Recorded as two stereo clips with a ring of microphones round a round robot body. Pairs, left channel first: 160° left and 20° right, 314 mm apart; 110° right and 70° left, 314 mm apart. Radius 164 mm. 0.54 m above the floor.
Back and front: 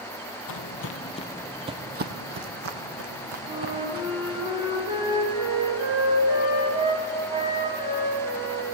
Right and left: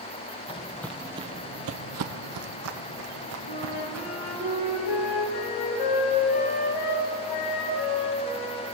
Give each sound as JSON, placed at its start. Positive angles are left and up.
{"t": 0.5, "sound": "footsteps", "azimuth_deg": 180, "distance_m": 0.8}
{"t": 3.5, "sound": "a flute", "azimuth_deg": -100, "distance_m": 2.5}